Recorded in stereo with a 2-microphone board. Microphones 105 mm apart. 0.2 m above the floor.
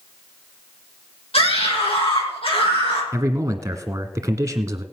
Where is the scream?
65° left (ahead or behind), 7 m; by 3.0 s 60° left (ahead or behind), 6.5 m.